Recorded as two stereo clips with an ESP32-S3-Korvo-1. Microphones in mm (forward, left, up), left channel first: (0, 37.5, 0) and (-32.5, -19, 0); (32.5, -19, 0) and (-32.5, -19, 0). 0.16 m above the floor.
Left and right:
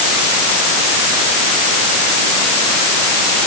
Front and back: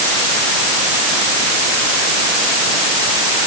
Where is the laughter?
No laughter in this recording.